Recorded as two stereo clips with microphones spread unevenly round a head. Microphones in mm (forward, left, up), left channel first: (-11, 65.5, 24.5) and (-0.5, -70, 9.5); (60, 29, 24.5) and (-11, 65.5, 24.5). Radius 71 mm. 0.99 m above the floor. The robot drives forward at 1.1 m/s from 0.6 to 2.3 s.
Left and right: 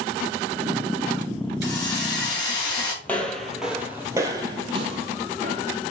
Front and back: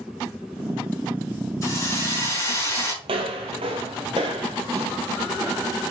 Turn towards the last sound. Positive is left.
turn(degrees=-125)